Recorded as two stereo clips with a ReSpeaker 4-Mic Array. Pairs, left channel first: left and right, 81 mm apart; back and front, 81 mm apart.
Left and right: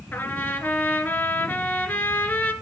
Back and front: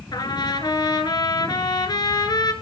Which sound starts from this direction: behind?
A trumpet, at 0.1 s.